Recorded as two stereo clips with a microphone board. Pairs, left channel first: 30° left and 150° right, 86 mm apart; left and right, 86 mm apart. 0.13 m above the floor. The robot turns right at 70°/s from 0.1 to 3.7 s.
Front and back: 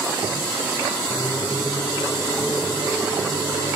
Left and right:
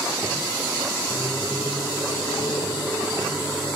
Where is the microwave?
15° left, 3 m; by 3.8 s 165° right, 3 m.